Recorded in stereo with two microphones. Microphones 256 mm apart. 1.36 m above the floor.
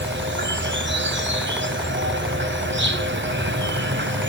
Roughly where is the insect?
Right.